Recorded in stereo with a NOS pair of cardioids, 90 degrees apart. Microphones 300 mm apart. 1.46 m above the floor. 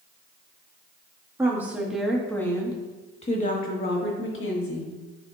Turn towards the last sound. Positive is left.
turn(degrees=50)